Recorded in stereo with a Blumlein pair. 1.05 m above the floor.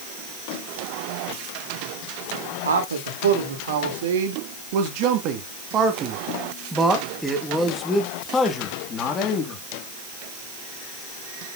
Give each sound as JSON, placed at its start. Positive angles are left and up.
{"t": 2.6, "sound": "a man speaking", "azimuth_deg": -70, "distance_m": 3.0}